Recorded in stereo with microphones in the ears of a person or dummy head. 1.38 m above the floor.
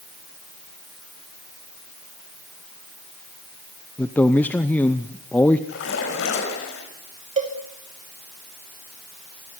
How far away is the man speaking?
About 0.7 m.